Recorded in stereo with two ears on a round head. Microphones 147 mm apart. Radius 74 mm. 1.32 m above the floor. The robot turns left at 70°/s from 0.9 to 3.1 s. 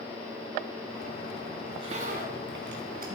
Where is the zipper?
20° right, 4 m; by 3.1 s 120° right, 4 m.